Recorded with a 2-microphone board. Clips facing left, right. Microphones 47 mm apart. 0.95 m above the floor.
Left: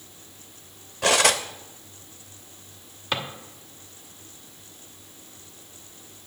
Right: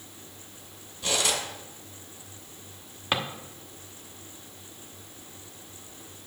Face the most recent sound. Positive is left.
turn(degrees=-20)  # may be behind; listen again after turning